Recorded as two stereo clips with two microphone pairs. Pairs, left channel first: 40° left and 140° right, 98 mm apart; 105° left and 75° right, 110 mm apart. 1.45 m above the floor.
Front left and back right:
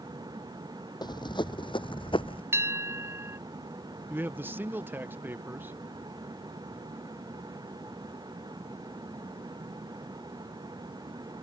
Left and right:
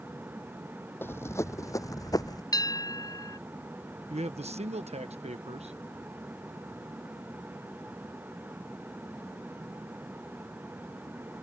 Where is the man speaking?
70° right.